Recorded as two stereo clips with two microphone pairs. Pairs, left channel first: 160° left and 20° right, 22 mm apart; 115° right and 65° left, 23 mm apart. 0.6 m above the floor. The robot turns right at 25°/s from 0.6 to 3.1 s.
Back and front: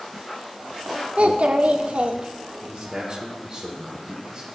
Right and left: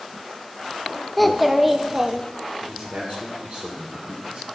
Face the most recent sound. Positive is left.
turn(degrees=35)